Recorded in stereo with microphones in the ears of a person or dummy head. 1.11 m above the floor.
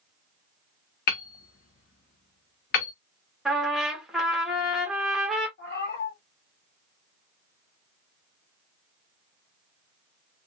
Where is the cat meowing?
55° left (ahead or behind), 1.7 m.